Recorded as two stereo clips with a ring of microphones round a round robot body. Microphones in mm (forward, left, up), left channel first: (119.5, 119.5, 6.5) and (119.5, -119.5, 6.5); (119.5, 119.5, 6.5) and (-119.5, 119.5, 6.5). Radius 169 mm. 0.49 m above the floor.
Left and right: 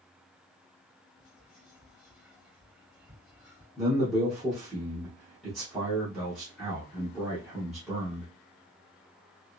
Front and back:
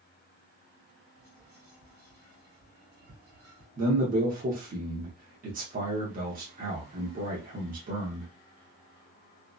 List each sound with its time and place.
1.2 s whispering: 160° left, 1.7 m
3.8 s a man speaking: straight behind, 0.8 m